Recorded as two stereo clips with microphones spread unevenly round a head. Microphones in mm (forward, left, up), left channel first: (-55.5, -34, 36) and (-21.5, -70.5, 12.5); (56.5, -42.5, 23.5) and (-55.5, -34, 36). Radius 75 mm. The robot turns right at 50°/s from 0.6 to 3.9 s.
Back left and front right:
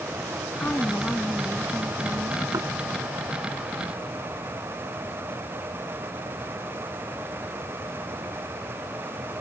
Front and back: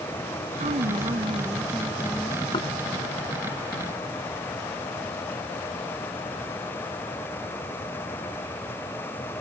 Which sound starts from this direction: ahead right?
Knocking, at 2.5 s.